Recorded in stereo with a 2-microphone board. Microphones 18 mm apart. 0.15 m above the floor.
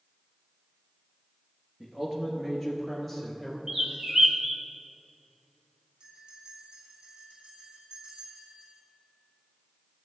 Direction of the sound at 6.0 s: 75° right (ahead or behind).